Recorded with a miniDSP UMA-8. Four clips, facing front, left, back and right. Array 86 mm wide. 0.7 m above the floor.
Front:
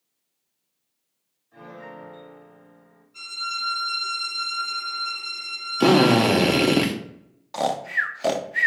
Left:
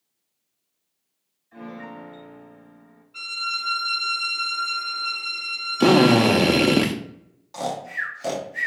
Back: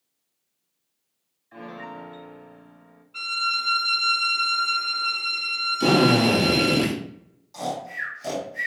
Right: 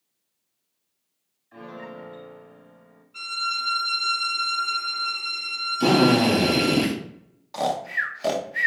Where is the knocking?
I don't hear knocking.